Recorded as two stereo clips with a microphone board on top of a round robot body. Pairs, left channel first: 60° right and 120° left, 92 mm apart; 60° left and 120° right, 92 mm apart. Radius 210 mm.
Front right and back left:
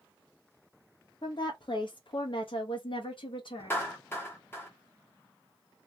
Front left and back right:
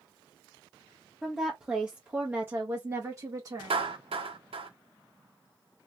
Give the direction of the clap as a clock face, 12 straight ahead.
4 o'clock.